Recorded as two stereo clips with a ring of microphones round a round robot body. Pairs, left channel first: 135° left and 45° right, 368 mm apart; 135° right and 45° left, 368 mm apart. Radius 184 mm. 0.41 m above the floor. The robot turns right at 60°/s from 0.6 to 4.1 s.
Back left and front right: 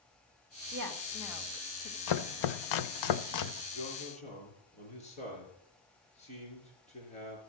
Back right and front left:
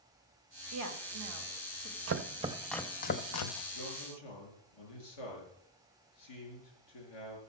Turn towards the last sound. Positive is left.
turn(degrees=-150)